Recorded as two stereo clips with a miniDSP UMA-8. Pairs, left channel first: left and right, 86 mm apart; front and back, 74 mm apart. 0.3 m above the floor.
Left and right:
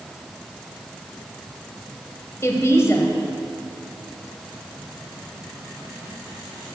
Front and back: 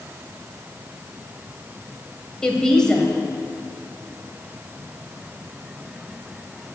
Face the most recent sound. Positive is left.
turn(degrees=75)